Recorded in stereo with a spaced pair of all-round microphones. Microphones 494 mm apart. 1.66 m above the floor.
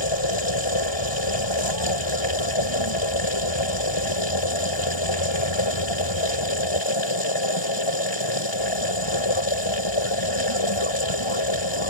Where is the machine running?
65° left (ahead or behind).